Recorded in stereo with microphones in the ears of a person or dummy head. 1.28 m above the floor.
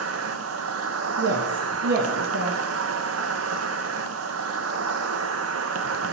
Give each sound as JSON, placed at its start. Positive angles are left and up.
{"t": 0.0, "sound": "an insect", "side_deg": -85, "distance_m": 0.9}
{"t": 1.2, "sound": "a woman speaking", "side_deg": -50, "distance_m": 2.0}